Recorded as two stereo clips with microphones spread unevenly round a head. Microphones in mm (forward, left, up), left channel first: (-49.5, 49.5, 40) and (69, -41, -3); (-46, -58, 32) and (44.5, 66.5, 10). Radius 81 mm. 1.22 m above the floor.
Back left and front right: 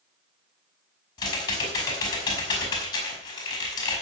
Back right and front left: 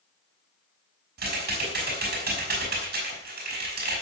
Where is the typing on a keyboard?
80° left, 5 m.